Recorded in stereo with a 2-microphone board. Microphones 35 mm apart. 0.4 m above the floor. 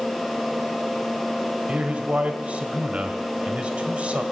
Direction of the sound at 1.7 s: 40° right (ahead or behind).